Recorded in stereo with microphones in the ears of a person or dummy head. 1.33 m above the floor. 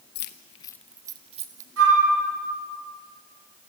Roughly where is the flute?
Right.